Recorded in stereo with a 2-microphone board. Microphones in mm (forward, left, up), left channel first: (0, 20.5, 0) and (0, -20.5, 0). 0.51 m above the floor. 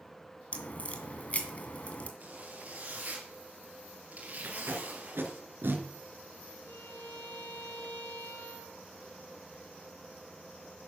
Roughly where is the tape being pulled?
Right.